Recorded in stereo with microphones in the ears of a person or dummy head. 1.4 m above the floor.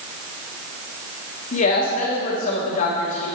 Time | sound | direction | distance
1.5 | a woman speaking | 45° left (ahead or behind) | 1.5 m